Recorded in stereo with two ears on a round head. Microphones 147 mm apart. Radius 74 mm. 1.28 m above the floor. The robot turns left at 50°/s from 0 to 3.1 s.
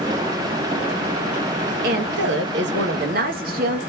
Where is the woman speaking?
55° right, 0.8 m; by 3.8 s 120° right, 0.8 m.